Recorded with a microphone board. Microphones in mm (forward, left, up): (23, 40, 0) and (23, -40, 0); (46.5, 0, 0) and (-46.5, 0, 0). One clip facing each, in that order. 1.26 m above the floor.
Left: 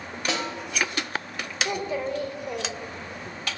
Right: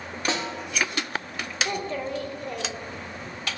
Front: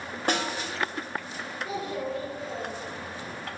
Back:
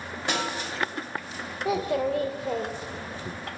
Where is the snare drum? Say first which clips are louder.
Right 1 dB, front 1 dB; 40° right, 1.4 m.